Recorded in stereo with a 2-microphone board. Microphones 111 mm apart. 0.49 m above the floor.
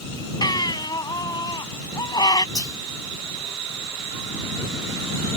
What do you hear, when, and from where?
0.4 s a baby crying: 40° left (ahead or behind)
2.5 s whispering: 30° left (ahead or behind)